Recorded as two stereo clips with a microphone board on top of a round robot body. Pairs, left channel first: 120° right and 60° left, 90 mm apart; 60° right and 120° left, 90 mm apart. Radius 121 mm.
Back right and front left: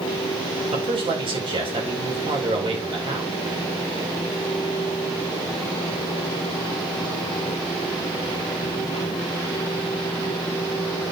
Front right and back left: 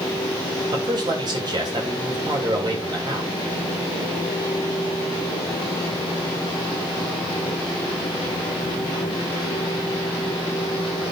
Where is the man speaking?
80° left, 4.5 m.